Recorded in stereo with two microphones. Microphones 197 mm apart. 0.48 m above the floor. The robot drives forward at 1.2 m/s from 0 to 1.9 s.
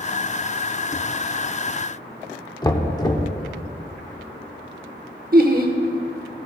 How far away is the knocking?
About 0.8 m.